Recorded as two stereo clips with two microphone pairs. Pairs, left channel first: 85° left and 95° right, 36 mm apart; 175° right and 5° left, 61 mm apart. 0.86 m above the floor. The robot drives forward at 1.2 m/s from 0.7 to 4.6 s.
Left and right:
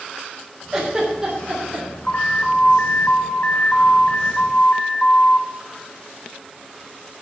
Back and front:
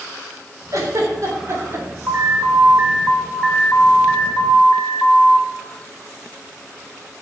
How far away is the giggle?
About 4 m.